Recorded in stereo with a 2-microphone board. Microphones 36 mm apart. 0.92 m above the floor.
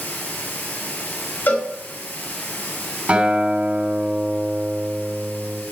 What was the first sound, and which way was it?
Running water, 70° left (ahead or behind).